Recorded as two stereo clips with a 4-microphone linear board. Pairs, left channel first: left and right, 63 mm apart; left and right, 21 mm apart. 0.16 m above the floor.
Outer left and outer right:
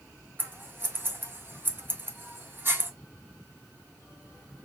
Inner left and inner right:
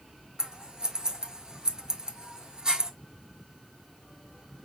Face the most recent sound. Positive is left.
turn(degrees=-35)  # may be behind; listen again after turning